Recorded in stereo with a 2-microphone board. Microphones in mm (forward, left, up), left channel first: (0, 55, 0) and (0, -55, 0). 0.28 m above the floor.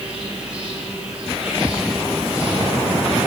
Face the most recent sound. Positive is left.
turn(degrees=-10)  # may be behind; listen again after turning